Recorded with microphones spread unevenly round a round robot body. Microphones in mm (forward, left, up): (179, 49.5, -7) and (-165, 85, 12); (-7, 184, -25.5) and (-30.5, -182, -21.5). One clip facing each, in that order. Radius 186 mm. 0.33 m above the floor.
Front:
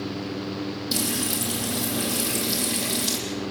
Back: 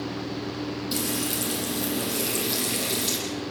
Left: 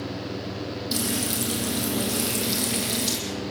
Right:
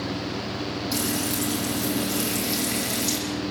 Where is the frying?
70° left, 8.5 m.